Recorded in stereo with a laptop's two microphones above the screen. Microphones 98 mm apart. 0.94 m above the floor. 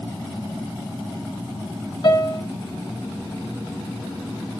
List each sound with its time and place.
2.0 s a piano: 55° left (ahead or behind), 3.5 m